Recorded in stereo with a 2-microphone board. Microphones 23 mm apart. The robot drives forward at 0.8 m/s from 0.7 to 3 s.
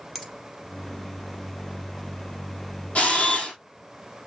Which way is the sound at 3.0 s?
70° left (ahead or behind).